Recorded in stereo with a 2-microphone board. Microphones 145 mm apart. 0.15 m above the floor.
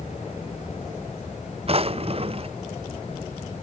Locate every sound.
1.7 s a drawer: 40° right (ahead or behind)